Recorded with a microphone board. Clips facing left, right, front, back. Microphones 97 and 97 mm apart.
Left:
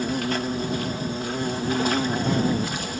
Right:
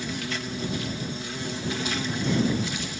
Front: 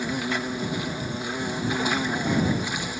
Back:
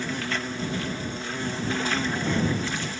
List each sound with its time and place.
0.0 s an insect: 75° left